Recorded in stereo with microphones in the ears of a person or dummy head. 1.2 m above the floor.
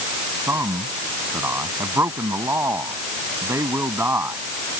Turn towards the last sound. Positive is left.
turn(degrees=-10)  # may be behind; listen again after turning